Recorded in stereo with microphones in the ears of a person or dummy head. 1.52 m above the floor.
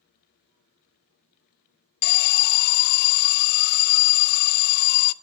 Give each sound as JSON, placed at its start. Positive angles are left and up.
{"t": 2.0, "sound": "an alarm", "side_deg": 55, "distance_m": 0.6}